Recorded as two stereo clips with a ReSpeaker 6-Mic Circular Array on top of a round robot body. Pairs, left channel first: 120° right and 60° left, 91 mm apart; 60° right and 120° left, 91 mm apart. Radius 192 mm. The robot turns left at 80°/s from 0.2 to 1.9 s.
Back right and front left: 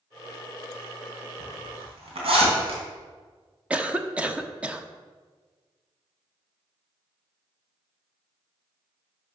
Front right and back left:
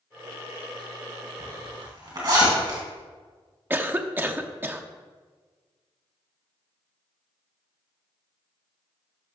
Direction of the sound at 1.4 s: 115° left.